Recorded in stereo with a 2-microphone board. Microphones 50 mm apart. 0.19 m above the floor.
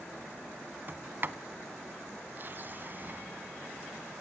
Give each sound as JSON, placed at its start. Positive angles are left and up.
{"t": 0.9, "sound": "a sliding door", "side_deg": -45, "distance_m": 0.6}